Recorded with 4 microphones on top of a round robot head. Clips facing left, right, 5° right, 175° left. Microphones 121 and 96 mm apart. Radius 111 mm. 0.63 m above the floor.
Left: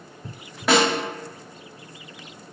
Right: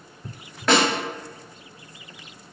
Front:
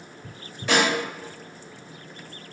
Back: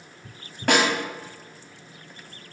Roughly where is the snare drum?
Behind.